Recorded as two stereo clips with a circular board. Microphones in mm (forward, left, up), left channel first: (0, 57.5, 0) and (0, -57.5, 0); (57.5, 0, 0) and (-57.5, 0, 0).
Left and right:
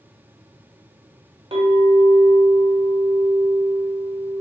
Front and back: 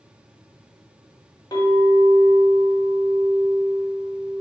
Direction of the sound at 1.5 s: 55° right.